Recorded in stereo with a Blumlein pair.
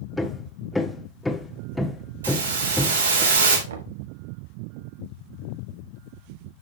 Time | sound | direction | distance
0.2 | hammering | 5° left | 1.2 m
2.2 | a hiss | 70° right | 3.5 m
3.7 | knocking | 65° right | 1.2 m